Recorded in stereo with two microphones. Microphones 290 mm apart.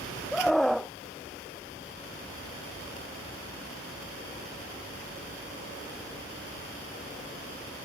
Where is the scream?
Centre (ahead or behind).